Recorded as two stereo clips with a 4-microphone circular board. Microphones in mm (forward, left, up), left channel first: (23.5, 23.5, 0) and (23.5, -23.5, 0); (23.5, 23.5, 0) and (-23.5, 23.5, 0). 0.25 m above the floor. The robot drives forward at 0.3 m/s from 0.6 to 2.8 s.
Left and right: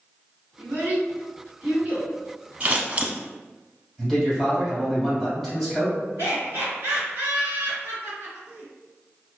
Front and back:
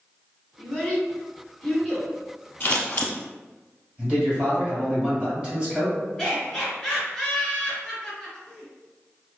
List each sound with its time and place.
0.6 s a child speaking: 65° right, 1.7 m; by 2.1 s 85° right, 1.6 m
2.6 s scissors: 35° right, 0.6 m; by 3.1 s 40° right, 0.6 m
4.0 s a man speaking: 170° right, 1.6 m
6.2 s laughter: 80° right, 1.7 m